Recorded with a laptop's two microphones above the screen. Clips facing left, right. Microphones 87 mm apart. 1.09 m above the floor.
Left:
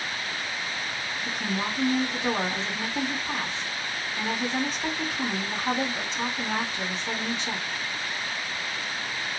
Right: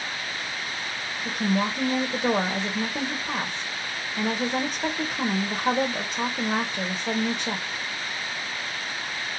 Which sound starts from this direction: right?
A woman speaking, at 1.2 s.